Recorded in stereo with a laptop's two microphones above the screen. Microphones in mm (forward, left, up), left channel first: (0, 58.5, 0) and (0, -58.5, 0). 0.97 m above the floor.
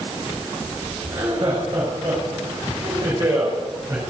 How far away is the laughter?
About 4.5 m.